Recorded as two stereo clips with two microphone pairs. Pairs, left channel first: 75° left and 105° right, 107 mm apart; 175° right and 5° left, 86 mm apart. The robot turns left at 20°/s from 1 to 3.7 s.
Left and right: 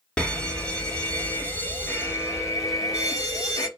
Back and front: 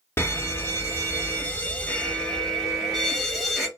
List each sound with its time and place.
0.2 s an alarm: 145° left, 0.7 m; by 3.7 s 95° left, 0.7 m